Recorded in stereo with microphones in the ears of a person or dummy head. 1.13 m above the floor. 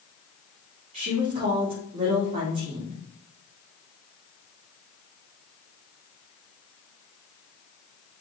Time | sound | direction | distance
0.9 | a woman speaking | 35° right (ahead or behind) | 2 m